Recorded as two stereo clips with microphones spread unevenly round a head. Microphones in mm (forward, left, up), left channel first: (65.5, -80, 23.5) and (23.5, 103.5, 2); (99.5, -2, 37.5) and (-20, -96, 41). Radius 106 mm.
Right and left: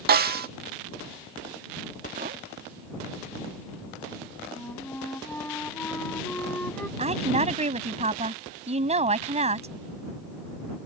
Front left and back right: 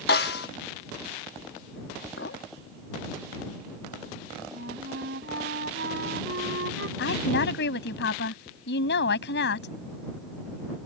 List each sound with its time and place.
0.1 s a snare drum: 70° left
2.2 s a clink: 60° left
4.5 s a flute: 160° right
7.0 s a woman speaking: 45° left